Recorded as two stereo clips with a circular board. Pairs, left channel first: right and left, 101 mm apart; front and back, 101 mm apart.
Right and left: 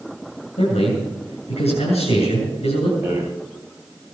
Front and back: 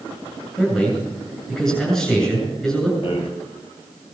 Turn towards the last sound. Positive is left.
turn(degrees=25)